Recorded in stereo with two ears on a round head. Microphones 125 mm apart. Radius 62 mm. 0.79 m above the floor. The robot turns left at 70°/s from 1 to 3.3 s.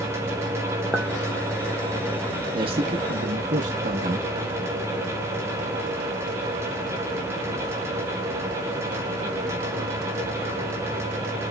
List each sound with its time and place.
0.9 s a clink: 5° right (ahead or behind), 0.8 m; by 1.1 s 10° right (ahead or behind), 0.8 m
2.5 s a man speaking: 40° right, 0.8 m; by 4.3 s 95° right, 0.8 m